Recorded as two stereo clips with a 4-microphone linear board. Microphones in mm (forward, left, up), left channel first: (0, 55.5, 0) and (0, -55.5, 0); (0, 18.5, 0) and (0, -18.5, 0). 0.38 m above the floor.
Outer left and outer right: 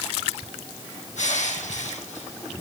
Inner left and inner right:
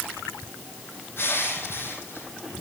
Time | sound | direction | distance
1.2 | crushing | 85° left | 4 m